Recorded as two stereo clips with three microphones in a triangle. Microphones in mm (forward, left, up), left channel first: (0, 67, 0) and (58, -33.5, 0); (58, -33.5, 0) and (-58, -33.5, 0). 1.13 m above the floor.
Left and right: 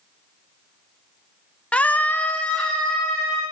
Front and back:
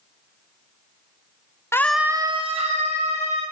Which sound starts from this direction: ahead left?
A scream, at 1.7 s.